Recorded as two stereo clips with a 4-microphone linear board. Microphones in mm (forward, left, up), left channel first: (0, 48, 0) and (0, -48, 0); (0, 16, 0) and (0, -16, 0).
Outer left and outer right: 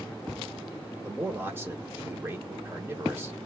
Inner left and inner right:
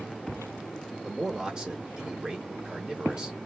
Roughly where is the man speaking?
Right.